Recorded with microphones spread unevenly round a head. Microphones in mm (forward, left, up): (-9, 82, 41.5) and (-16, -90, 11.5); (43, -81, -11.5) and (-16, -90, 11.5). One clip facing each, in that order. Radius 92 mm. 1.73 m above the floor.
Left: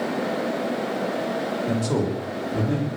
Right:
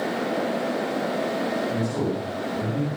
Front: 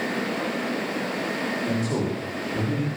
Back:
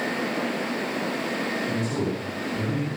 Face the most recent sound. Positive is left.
turn(degrees=80)